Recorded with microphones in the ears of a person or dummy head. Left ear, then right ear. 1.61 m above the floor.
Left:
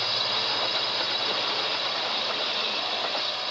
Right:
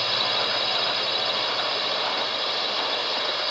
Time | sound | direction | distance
0.0 | a drone | 15° right (ahead or behind) | ?